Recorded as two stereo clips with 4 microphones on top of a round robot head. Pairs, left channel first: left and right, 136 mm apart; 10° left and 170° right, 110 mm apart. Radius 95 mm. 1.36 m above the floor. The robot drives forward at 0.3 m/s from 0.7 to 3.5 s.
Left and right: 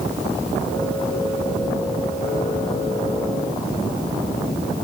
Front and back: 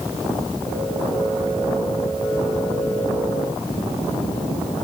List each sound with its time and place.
Only background noise.